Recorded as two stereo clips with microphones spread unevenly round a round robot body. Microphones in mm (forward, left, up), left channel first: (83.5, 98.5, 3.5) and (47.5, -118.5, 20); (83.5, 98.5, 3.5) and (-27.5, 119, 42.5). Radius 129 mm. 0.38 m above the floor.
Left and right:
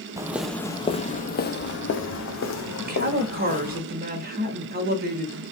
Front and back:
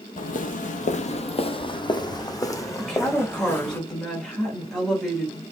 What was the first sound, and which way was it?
Footsteps, 25° right.